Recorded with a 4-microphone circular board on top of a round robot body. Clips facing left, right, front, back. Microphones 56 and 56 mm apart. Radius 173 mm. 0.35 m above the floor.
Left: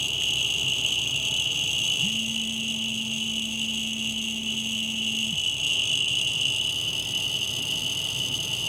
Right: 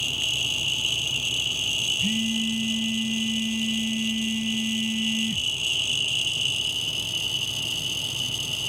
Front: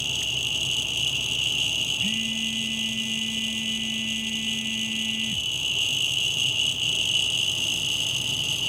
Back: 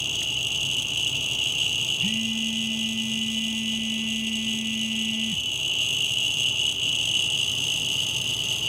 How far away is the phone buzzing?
About 0.7 m.